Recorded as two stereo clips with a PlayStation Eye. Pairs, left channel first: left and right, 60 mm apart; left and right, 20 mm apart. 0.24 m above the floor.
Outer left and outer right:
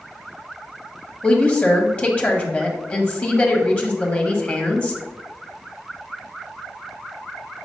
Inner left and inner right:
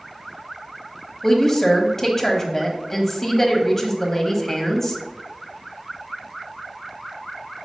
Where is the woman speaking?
20° left (ahead or behind), 1.1 m.